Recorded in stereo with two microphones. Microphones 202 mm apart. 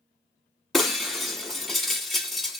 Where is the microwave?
No microwave in this recording.